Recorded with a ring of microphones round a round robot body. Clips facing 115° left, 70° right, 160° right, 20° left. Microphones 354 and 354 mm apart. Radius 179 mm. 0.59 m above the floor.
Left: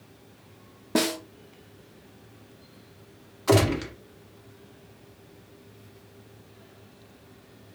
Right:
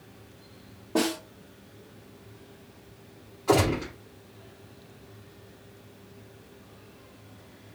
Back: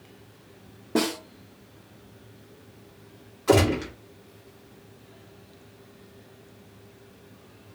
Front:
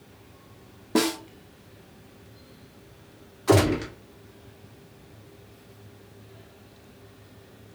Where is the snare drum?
90° left, 1.1 m.